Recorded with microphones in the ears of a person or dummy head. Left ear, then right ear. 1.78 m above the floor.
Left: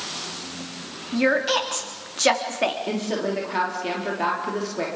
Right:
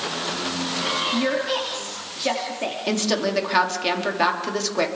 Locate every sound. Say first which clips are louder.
1.1 s a woman speaking: left 2 dB; 55° left (ahead or behind), 3.5 m
2.9 s a woman speaking: right 3 dB; 50° right (ahead or behind), 4.5 m